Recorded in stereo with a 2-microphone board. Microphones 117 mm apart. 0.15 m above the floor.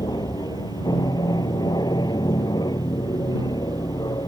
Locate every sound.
0.0 s an aircraft: 35° left (ahead or behind)